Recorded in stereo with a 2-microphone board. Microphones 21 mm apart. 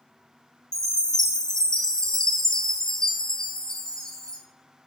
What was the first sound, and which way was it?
A chime, 30° left (ahead or behind).